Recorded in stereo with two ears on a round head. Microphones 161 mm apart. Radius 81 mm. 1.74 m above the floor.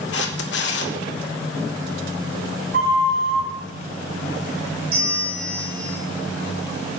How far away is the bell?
About 4.5 m.